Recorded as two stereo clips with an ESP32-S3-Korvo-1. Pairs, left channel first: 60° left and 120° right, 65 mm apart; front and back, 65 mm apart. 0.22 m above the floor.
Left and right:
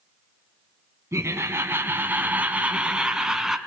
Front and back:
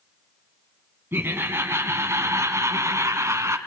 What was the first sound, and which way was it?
Laughter, 140° right.